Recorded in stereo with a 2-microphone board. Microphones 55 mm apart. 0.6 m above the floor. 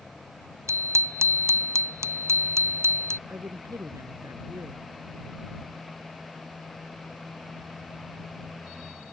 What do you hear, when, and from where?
0.7 s a bicycle bell: 65° right (ahead or behind); by 3.2 s 55° right (ahead or behind)
3.3 s a woman speaking: 75° right (ahead or behind)